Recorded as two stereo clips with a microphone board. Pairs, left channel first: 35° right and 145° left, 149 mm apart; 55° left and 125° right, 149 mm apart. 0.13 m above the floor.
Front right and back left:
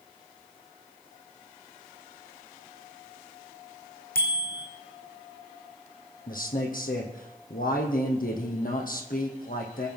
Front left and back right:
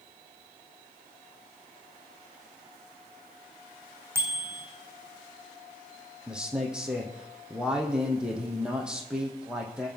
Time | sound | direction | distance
4.2 | a bicycle bell | 50° right | 3.5 m
6.3 | a man speaking | 40° right | 3.5 m